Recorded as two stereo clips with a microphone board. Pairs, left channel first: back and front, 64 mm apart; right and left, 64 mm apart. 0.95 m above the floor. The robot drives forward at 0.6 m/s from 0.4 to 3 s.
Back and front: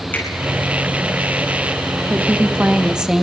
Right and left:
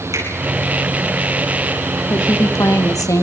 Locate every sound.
0.1 s a finger snap: 115° left, 8.5 m
2.1 s a woman speaking: 55° right, 1.6 m; by 3.2 s 75° right, 1.4 m